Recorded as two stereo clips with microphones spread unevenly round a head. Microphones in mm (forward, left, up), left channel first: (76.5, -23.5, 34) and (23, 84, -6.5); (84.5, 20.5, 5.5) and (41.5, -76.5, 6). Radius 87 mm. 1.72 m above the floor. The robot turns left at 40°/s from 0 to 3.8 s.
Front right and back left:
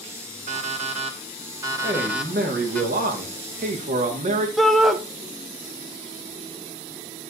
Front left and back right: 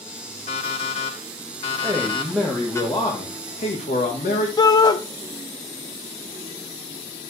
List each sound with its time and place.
0.5 s an alarm clock: 100° left, 3 m; by 2.8 s 5° left, 3 m
1.8 s a man speaking: 175° left, 1.8 m; by 4.5 s 95° left, 1.8 m
4.6 s a shout: 20° left, 1.1 m